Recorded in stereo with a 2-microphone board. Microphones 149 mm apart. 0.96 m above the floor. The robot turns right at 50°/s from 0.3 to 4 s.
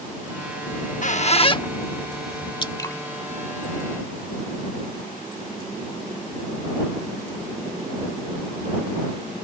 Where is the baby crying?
I don't hear a baby crying.